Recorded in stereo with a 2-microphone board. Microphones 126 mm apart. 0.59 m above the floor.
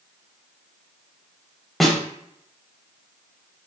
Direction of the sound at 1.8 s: Centre (ahead or behind).